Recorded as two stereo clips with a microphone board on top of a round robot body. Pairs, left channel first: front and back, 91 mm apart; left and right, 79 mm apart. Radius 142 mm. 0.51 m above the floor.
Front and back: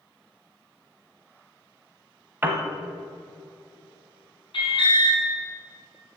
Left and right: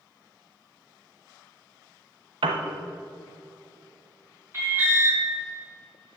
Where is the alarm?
30° right, 4.5 m.